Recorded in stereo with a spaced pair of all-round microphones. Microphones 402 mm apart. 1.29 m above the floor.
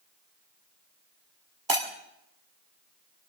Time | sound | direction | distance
1.7 | breaking glass | 60° right (ahead or behind) | 2.0 m